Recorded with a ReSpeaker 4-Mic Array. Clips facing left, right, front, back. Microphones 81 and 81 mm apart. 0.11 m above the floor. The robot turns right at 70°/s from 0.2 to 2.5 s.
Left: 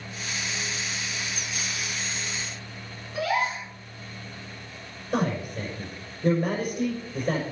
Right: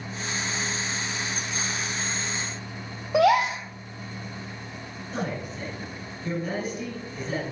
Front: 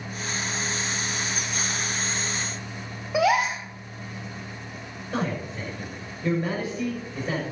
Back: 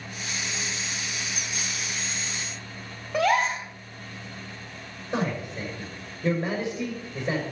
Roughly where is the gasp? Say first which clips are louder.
Right 7 dB, front 1 dB; right.